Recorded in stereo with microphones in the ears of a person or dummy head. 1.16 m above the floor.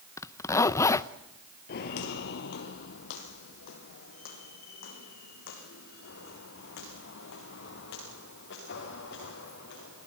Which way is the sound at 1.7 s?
45° left (ahead or behind).